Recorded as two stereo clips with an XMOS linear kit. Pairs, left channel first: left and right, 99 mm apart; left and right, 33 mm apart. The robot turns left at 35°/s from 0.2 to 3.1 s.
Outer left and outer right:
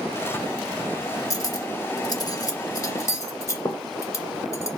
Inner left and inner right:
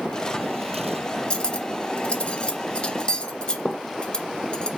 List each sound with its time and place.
1.3 s cutlery clinking: 35° left (ahead or behind), 0.5 m; by 4.7 s 30° left (ahead or behind), 0.5 m